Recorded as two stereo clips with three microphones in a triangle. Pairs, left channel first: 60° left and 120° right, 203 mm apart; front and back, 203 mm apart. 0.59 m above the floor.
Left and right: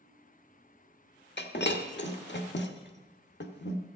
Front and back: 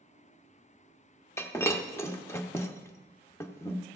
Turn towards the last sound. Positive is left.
turn(degrees=75)